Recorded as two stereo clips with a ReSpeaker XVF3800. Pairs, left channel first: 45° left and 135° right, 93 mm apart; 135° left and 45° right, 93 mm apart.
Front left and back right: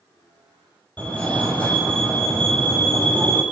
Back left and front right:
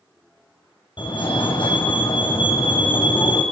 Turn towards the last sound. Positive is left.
turn(degrees=120)